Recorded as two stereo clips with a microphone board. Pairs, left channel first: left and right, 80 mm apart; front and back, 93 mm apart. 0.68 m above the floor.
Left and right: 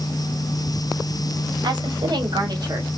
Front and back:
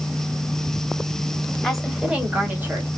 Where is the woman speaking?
90° right, 1.4 m; by 2.9 s 120° right, 1.4 m.